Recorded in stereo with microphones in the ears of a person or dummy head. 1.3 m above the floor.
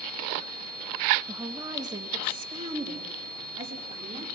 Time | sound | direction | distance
1.3 | a woman speaking | 10° right (ahead or behind) | 1.0 m